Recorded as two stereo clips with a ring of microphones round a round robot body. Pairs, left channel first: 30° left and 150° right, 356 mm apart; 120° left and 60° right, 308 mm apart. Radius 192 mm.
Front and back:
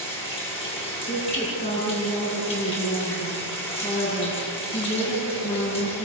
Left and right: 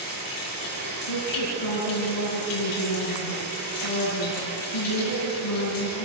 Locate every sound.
0.0 s running water: 105° left, 8.5 m
1.1 s a woman speaking: 100° left, 8 m